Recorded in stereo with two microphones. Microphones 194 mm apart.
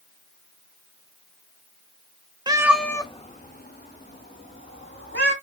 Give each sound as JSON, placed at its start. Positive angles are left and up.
{"t": 2.5, "sound": "a cat meowing", "side_deg": -20, "distance_m": 0.7}